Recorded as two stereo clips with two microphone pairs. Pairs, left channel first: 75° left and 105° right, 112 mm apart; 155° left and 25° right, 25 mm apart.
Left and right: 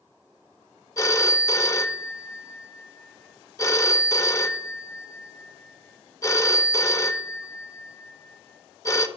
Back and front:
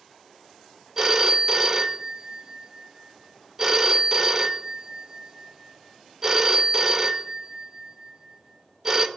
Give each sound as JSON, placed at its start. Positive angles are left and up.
{"t": 1.0, "sound": "a phone ringing", "azimuth_deg": 35, "distance_m": 0.6}